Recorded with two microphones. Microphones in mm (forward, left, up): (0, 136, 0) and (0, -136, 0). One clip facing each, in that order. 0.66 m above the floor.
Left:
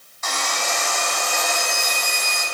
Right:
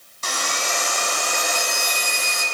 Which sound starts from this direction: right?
Sawing, at 0.2 s.